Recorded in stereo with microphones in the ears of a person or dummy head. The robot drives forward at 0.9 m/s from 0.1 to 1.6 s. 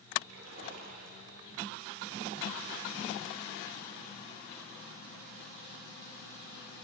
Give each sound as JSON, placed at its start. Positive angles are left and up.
{"t": 0.3, "sound": "a splash", "side_deg": -80, "distance_m": 2.0}